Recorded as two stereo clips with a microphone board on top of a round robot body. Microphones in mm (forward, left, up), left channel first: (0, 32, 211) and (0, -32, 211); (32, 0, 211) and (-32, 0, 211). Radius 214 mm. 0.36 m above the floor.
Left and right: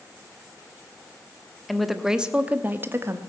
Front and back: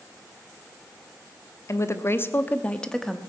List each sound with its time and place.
1.7 s a woman speaking: straight ahead, 1.5 m; by 3.2 s 90° right, 1.4 m